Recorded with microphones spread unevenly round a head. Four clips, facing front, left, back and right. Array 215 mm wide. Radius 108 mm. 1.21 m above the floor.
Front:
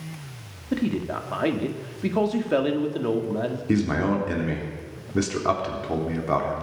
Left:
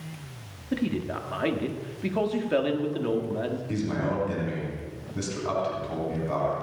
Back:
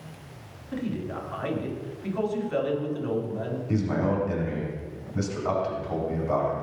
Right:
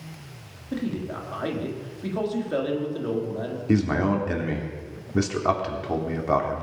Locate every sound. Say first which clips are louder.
0.7 s a man speaking: left 1 dB, front 6 dB; 15° left, 2 m
3.7 s a man speaking: right 9 dB, front 3 dB; 45° right, 3.5 m